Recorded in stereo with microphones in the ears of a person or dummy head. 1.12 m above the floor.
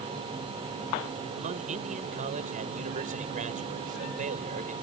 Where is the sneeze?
No sneeze in this recording.